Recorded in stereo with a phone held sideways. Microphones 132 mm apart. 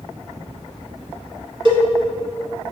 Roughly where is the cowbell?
Right.